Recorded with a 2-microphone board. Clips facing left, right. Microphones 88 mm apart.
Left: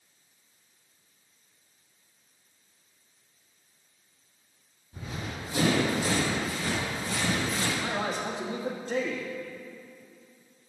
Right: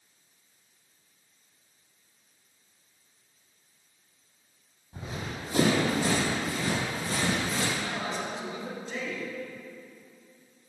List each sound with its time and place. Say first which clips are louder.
4.9 s running footsteps: even; 30° right (ahead or behind), 3 m; by 7.7 s 70° right (ahead or behind), 3.5 m
7.8 s a man speaking: left 2 dB; 55° left (ahead or behind), 1.5 m